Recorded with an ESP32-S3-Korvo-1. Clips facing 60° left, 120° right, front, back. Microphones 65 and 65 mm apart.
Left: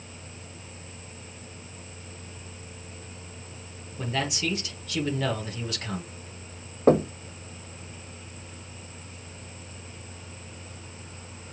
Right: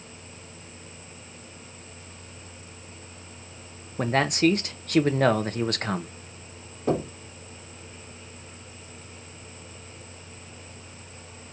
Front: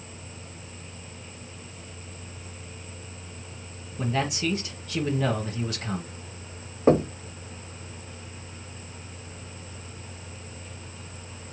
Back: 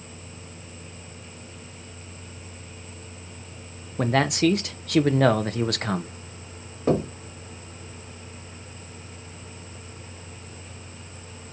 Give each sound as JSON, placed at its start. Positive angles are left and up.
{"t": 4.0, "sound": "a man speaking", "azimuth_deg": -155, "distance_m": 0.8}
{"t": 6.9, "sound": "knocking", "azimuth_deg": 55, "distance_m": 1.2}